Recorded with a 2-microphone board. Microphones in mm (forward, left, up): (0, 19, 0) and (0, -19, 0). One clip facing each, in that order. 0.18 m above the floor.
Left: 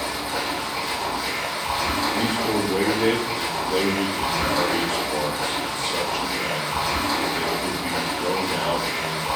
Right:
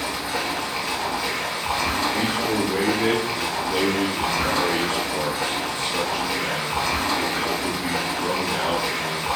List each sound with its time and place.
0.0 s running water: 55° right (ahead or behind), 1.4 m
2.1 s a man speaking: 35° right (ahead or behind), 1.4 m